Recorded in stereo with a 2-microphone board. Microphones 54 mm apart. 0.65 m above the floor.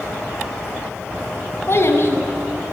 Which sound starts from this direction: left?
A child speaking, at 1.7 s.